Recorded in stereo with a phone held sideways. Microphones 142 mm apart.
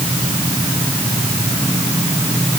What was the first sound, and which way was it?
Only background noise.